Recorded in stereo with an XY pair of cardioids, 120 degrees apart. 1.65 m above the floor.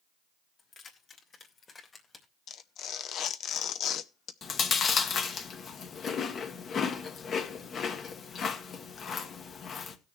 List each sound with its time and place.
0.6 s keys jangling: 55° left, 2.5 m; by 2.3 s 25° left, 2.0 m
2.5 s tearing paper: 60° left, 0.7 m
4.4 s chewing: 50° left, 1.3 m